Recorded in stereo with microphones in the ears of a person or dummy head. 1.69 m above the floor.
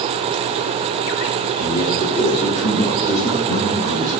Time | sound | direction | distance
1.6 | a man speaking | 25° left (ahead or behind) | 3 m